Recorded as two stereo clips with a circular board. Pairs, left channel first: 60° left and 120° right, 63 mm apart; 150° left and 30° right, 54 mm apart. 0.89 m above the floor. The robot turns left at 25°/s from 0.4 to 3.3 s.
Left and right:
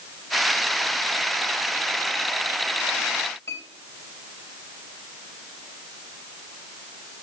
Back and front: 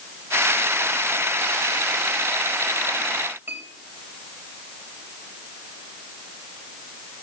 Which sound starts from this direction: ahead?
A clink, at 3.5 s.